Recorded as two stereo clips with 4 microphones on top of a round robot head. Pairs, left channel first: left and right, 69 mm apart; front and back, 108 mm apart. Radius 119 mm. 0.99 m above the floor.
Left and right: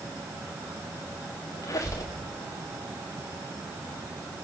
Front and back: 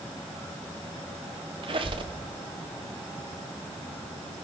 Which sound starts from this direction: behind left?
A squeak, at 1.6 s.